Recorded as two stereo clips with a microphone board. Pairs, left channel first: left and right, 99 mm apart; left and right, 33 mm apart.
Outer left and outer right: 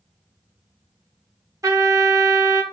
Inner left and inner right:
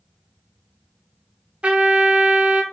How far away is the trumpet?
About 0.6 m.